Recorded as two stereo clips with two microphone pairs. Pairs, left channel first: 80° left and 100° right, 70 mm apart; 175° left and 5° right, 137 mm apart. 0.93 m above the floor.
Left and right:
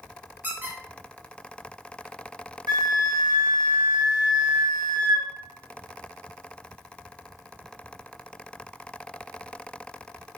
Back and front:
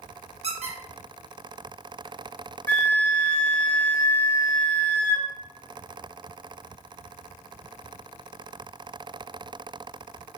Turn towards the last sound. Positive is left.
turn(degrees=-105)